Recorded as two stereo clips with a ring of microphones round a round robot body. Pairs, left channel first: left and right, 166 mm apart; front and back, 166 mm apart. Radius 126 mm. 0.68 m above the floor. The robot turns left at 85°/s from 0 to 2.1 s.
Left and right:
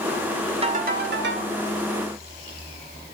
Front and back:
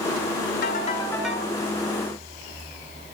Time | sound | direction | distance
0.6 | a ringtone | 35° right | 1.8 m